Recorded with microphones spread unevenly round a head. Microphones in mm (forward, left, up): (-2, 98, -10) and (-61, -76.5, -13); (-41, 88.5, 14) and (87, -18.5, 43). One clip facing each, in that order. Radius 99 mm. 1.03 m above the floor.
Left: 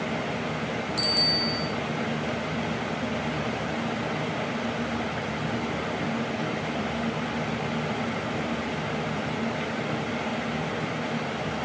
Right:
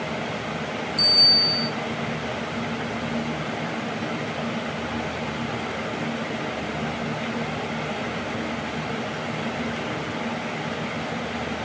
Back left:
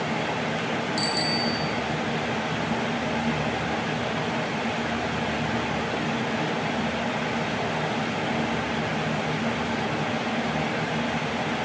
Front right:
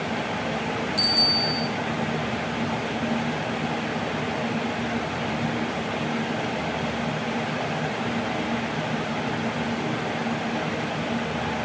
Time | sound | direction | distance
1.0 | a bicycle bell | 70° left | 6 m